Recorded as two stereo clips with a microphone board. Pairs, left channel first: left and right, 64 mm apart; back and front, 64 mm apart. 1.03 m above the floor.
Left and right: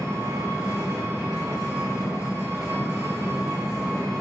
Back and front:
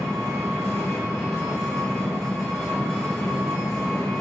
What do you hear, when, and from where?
0.0 s an engine running: 105° right, 1.1 m